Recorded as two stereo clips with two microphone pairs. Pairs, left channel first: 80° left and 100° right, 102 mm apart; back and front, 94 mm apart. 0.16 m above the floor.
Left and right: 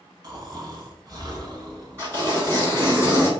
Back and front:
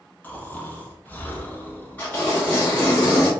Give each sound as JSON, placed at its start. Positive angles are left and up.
{"t": 0.2, "sound": "snoring", "azimuth_deg": -120, "distance_m": 0.8}
{"t": 2.0, "sound": "tearing paper", "azimuth_deg": -135, "distance_m": 1.9}